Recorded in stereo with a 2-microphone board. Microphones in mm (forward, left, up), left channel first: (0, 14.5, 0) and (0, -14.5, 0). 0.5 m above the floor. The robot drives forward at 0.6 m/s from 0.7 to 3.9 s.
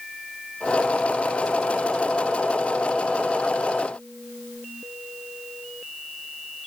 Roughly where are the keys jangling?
No keys jangling in this recording.